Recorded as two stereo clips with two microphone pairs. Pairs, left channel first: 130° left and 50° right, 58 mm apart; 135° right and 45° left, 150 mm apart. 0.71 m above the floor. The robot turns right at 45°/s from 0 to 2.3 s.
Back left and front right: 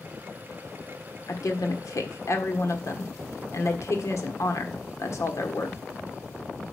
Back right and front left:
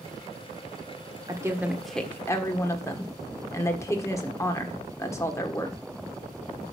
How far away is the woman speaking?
About 1.4 m.